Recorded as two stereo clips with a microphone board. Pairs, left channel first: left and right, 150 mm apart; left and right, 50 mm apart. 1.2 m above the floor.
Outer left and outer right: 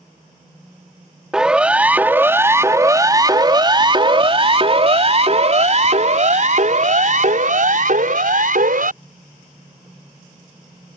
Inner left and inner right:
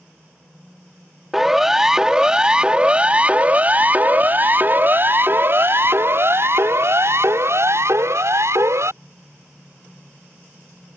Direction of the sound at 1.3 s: 5° right (ahead or behind).